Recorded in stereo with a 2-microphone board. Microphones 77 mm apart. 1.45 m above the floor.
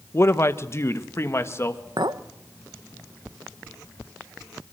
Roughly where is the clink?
Right.